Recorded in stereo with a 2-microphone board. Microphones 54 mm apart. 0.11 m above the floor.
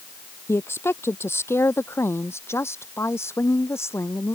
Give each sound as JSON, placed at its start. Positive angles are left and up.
{"t": 0.5, "sound": "a woman speaking", "side_deg": 50}